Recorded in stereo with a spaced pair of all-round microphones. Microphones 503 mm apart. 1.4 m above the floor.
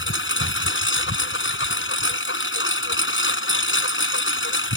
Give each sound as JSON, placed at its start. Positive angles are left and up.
{"t": 0.0, "sound": "a lawn mower", "side_deg": 25}